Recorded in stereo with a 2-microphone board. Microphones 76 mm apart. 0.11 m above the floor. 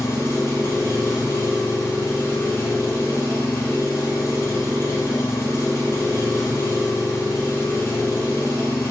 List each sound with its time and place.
0.0 s an engine running: 40° left (ahead or behind), 1.7 m